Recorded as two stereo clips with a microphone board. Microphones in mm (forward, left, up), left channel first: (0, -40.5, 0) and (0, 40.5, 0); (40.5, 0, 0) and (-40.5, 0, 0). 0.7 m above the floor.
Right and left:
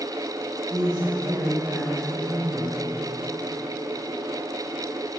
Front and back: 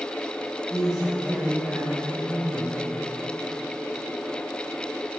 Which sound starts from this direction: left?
A woman speaking, at 0.7 s.